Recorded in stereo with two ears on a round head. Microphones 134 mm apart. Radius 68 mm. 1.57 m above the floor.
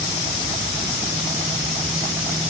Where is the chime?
No chime in this recording.